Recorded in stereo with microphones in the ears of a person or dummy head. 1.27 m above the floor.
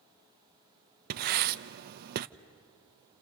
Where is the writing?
55° right (ahead or behind), 0.6 m.